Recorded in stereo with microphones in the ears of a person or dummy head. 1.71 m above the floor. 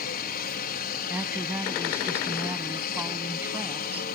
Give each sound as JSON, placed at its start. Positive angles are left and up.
{"t": 0.0, "sound": "a helicopter", "side_deg": 45}
{"t": 1.1, "sound": "a woman speaking", "side_deg": -10}